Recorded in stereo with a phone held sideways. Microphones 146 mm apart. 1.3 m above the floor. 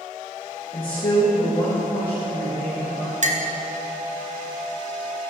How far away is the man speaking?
About 1.5 m.